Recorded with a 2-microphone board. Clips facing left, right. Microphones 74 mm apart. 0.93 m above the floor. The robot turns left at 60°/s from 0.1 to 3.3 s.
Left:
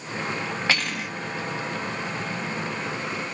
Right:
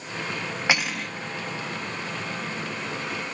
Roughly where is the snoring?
I don't hear snoring.